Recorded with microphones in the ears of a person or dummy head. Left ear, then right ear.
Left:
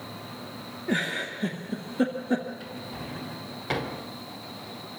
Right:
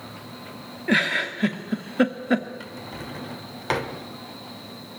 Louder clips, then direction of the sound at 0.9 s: Right 7 dB; 75° right (ahead or behind).